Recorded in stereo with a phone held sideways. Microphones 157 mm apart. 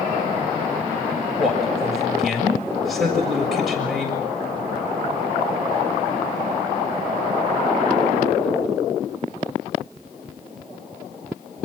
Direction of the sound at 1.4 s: Centre (ahead or behind).